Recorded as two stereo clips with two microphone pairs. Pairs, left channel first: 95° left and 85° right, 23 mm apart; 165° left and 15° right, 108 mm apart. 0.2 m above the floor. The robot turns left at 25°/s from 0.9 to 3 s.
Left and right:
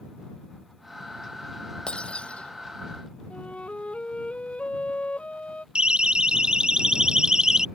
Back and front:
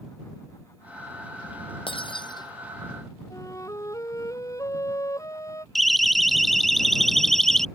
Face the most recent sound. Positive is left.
turn(degrees=-110)